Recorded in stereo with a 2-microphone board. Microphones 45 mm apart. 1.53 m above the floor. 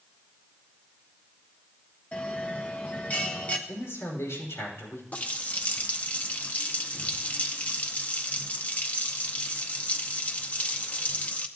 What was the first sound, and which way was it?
A bell, 35° left (ahead or behind).